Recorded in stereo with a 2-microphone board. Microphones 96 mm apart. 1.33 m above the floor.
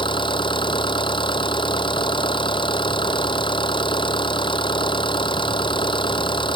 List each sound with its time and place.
0.0 s an engine running: 60° left (ahead or behind)